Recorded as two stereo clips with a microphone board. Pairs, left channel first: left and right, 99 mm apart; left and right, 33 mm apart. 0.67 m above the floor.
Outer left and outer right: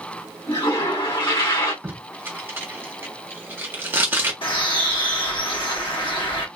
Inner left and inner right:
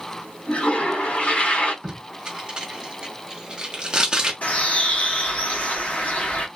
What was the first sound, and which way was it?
A toilet flushing, 55° left (ahead or behind).